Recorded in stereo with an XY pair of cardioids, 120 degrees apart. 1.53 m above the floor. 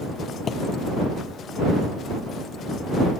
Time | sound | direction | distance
0.5 | a thud | 40° left | ?